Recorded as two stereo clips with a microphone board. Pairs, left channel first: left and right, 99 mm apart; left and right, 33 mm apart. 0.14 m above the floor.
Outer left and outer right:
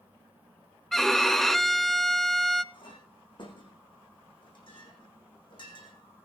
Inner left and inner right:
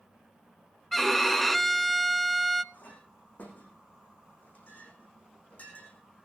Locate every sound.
0.9 s a violin: 5° left (ahead or behind), 0.5 m
2.7 s a clink: 50° left (ahead or behind), 5.5 m